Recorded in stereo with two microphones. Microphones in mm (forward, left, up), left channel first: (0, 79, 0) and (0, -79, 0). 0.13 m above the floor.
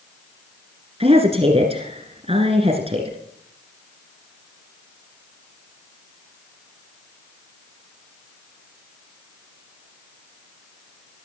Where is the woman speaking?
40° right (ahead or behind), 1.9 m.